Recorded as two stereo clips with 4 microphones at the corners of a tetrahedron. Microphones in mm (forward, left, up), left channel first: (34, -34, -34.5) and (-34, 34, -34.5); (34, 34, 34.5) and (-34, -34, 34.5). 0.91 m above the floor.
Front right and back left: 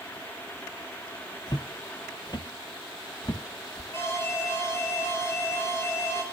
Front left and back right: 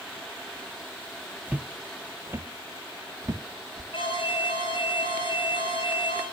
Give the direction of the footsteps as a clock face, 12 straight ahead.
2 o'clock.